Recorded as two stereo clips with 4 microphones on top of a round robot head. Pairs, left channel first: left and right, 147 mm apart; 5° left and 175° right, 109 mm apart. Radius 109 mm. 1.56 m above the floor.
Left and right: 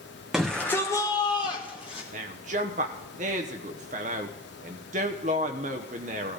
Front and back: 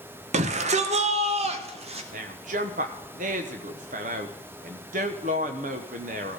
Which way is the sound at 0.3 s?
Straight behind.